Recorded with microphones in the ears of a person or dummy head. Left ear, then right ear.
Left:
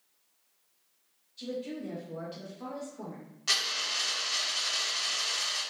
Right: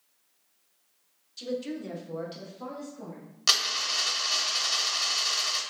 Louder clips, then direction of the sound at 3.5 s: Right 4 dB; 70° right (ahead or behind).